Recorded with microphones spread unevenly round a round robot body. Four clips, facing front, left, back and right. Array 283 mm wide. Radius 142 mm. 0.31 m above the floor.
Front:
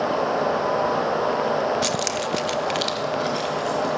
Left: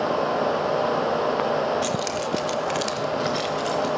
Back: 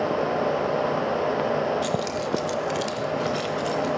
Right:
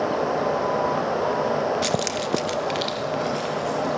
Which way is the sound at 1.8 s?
10° right.